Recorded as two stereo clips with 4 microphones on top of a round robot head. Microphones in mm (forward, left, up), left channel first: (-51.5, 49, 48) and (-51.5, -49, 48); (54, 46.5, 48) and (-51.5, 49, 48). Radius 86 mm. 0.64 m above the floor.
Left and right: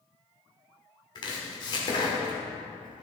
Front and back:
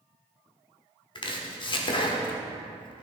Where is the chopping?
40° left, 1.1 m.